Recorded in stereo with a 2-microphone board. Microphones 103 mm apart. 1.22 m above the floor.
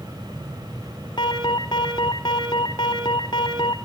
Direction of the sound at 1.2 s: 45° left (ahead or behind).